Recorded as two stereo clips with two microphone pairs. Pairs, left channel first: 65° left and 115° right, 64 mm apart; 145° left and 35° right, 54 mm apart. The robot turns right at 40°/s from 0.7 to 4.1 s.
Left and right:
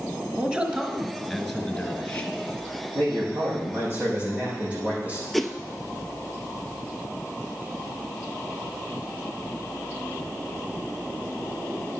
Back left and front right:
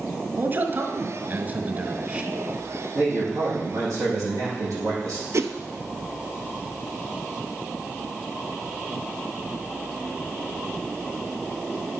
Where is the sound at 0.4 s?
50° right, 1.4 m; by 2.3 s 10° left, 1.4 m.